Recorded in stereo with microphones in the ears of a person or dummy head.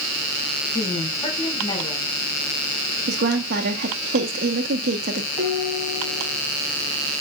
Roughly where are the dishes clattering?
Centre.